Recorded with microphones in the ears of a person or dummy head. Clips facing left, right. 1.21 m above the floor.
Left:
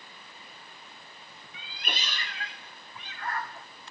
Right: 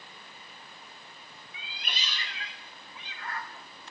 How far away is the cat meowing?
About 0.8 m.